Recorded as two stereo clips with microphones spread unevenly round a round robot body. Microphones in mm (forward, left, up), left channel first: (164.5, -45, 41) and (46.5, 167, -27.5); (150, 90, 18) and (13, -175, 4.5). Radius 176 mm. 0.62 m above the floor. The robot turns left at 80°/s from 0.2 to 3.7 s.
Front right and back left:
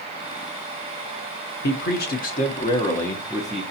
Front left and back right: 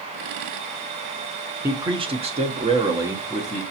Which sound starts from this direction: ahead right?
A man speaking, at 1.6 s.